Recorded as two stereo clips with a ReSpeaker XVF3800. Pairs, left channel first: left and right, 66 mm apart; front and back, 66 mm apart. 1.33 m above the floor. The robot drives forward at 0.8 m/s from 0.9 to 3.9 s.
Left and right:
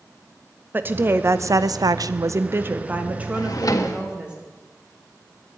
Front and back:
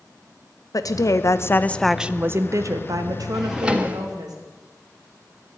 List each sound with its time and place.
0.7 s a woman speaking: 30° right, 0.9 m; by 4.3 s 165° right, 1.7 m
3.3 s a drawer: 90° left, 1.1 m; by 4.0 s 115° left, 1.2 m